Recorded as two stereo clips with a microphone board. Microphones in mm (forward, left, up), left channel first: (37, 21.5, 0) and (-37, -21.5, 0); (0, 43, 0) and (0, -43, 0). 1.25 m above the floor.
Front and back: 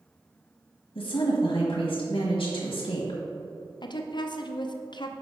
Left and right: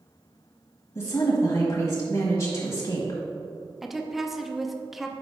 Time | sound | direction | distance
0.9 | a woman speaking | 45° left | 1.3 m
3.8 | a woman speaking | 5° right | 0.5 m